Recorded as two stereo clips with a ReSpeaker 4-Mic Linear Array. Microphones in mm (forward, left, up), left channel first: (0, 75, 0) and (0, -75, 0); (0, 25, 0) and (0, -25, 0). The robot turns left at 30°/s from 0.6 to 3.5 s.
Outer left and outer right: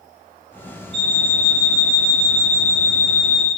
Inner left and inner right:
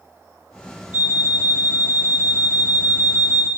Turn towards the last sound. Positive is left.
turn(degrees=-150)